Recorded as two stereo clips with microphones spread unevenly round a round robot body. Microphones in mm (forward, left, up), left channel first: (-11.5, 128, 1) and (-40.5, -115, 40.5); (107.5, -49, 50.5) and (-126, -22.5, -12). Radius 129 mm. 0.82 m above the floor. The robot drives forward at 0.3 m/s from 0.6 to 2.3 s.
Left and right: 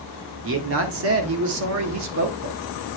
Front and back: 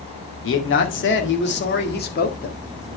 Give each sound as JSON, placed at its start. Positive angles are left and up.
{"t": 0.4, "sound": "a man speaking", "azimuth_deg": -50, "distance_m": 2.0}